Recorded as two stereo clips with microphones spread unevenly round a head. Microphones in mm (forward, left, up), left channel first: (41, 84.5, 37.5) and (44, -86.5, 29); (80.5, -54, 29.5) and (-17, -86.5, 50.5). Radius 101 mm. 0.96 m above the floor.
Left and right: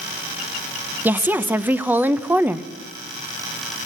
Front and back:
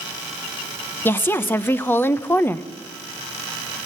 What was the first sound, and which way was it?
A woman speaking, 20° right.